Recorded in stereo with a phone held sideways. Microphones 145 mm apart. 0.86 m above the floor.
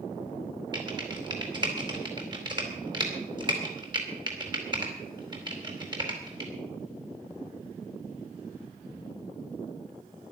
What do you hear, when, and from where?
0.7 s typing on a keyboard: 30° right (ahead or behind), 4 m